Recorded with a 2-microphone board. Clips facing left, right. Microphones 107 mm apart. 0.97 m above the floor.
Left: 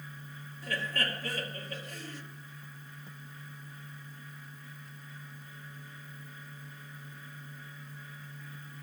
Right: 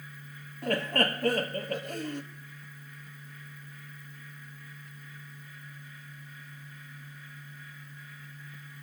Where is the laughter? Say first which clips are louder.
Right 7 dB; 60° right (ahead or behind), 1.3 m.